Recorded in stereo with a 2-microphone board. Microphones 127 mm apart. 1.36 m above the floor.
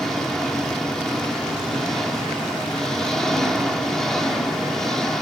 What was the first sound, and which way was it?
An engine running, 5° left (ahead or behind).